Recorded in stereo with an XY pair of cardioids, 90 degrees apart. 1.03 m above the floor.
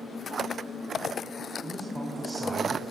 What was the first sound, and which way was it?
A man speaking, 20° right.